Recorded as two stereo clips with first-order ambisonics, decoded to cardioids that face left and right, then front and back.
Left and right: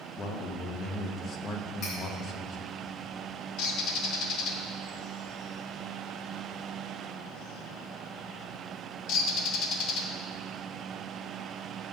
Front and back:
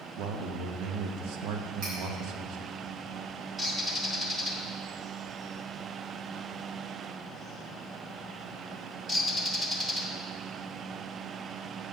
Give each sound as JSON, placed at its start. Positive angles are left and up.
{"t": 0.2, "sound": "a man speaking", "azimuth_deg": 150, "distance_m": 0.9}
{"t": 1.8, "sound": "cutlery clinking", "azimuth_deg": 140, "distance_m": 3.5}
{"t": 3.6, "sound": "a bird", "azimuth_deg": 95, "distance_m": 1.1}